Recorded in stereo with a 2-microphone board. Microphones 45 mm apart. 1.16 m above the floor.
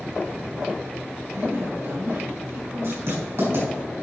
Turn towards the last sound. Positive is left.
turn(degrees=-60)  # may be behind; listen again after turning